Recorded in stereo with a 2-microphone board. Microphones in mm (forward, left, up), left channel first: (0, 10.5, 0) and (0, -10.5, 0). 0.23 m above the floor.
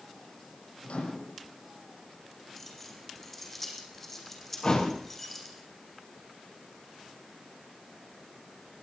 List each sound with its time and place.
0.8 s a microwave: 80° left, 7 m
2.6 s keys jangling: 5° left (ahead or behind), 6.5 m
4.6 s a thud: 45° left (ahead or behind), 6 m